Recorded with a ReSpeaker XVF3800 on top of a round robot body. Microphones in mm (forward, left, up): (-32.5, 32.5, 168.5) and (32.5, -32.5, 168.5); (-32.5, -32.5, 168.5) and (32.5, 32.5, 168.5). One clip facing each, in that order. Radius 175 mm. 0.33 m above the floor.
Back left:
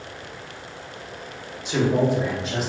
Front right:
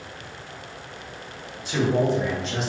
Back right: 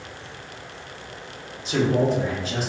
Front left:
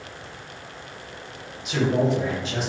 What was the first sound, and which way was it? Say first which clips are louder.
A man speaking: back left 1 dB, back right 1 dB; 165° right.